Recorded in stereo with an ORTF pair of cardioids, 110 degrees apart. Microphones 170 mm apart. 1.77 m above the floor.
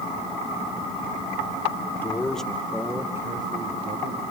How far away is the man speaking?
About 3 m.